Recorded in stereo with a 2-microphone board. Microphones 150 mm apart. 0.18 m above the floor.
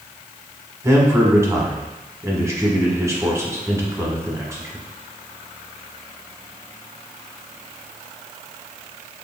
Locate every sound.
0.8 s a man speaking: 20° right (ahead or behind), 1.0 m